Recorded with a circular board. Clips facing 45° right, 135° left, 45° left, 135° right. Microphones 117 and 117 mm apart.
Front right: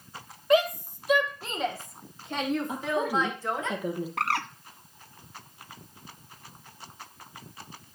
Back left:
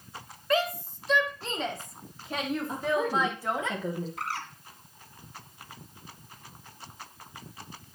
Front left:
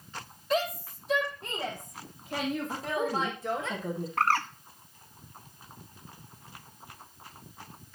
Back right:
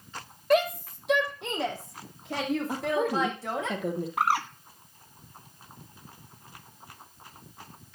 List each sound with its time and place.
0.5 s a shout: 115° right, 3 m; by 3.7 s 145° right, 6.5 m
2.7 s a woman speaking: 125° right, 3 m
4.2 s a bird: 55° right, 0.7 m